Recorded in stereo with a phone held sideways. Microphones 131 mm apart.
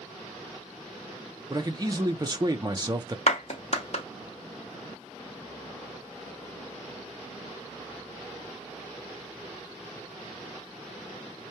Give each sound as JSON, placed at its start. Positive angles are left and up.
{"t": 1.5, "sound": "a man speaking", "side_deg": -30, "distance_m": 0.7}
{"t": 3.3, "sound": "a clap", "side_deg": 55, "distance_m": 0.9}